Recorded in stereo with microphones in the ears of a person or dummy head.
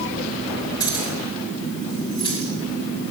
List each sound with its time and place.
0.8 s keys jangling: 20° left (ahead or behind), 3.5 m; by 3.1 s 30° left (ahead or behind), 5.5 m